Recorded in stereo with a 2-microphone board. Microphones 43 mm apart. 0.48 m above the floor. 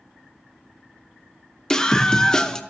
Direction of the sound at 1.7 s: 20° left (ahead or behind).